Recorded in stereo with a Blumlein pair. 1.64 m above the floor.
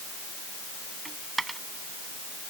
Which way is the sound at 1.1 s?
10° right.